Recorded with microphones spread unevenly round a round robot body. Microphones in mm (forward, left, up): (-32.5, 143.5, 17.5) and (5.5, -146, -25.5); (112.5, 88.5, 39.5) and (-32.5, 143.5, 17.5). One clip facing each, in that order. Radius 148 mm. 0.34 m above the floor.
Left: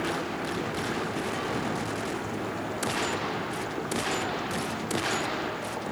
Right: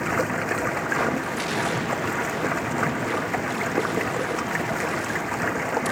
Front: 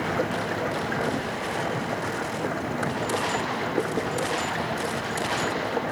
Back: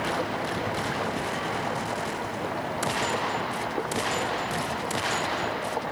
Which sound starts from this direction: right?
Running water, at 0.0 s.